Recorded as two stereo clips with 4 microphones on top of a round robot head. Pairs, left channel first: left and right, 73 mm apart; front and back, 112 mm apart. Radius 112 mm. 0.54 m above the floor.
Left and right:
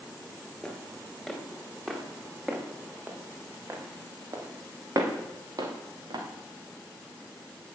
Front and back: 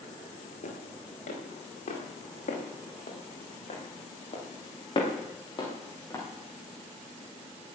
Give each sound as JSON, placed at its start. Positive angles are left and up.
{"t": 0.6, "sound": "footsteps", "azimuth_deg": 5, "distance_m": 5.5}